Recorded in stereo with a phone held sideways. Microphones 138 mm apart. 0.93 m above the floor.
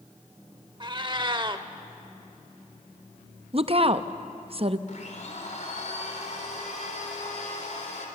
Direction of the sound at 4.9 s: 60° left (ahead or behind).